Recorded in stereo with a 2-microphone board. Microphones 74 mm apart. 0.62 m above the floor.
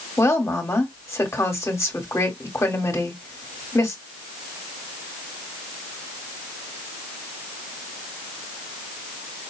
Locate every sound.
0.2 s a woman speaking: 35° left (ahead or behind), 1.7 m